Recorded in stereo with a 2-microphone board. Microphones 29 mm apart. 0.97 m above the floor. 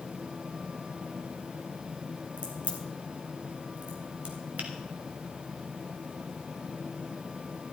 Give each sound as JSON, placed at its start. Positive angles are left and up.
{"t": 2.4, "sound": "a crack", "side_deg": -45, "distance_m": 2.5}
{"t": 4.6, "sound": "a finger snap", "side_deg": -70, "distance_m": 2.0}